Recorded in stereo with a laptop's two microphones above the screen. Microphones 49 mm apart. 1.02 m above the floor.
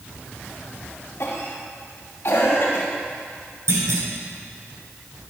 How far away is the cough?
About 1.3 m.